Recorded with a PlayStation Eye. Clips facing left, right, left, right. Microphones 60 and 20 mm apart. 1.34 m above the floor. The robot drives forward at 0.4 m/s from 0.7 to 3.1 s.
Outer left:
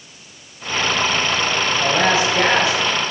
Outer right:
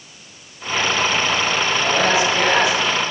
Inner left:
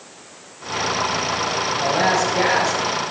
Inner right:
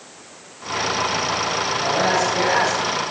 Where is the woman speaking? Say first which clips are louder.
Outer left 2 dB, inner left 2 dB; 30° left (ahead or behind), 7 m.